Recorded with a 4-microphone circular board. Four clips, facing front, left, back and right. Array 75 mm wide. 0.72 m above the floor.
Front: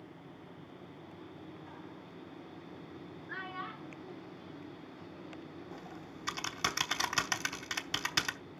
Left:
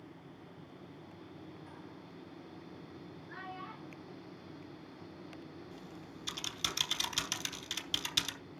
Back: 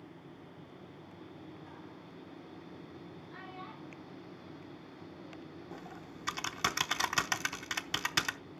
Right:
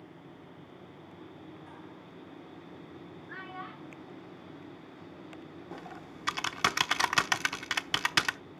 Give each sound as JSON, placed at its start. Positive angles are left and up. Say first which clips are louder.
{"t": 3.3, "sound": "a child speaking", "louder": "right 3 dB, front 7 dB", "azimuth_deg": -30, "distance_m": 6.5}
{"t": 5.7, "sound": "typing on a keyboard", "louder": "right 5 dB, even", "azimuth_deg": -95, "distance_m": 0.9}